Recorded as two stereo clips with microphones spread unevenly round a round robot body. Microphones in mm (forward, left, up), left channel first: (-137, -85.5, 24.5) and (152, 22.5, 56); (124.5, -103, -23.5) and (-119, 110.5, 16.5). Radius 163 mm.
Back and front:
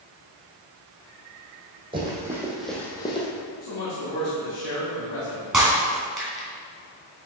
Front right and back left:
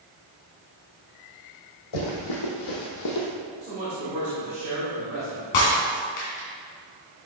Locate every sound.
1.9 s running footsteps: 50° right, 1.8 m; by 3.3 s 85° right, 1.4 m
3.6 s a man speaking: 150° right, 1.8 m
5.5 s breaking glass: 65° right, 2.5 m